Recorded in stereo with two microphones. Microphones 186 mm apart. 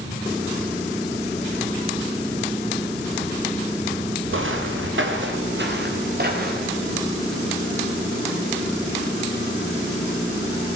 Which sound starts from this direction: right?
Footsteps, at 4.3 s.